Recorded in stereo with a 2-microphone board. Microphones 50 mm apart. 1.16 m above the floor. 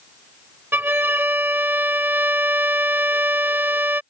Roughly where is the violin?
Right.